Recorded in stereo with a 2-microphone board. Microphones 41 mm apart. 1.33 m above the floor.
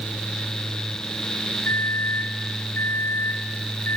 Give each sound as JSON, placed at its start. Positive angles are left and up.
{"t": 1.6, "sound": "a microwave", "side_deg": 60, "distance_m": 5.5}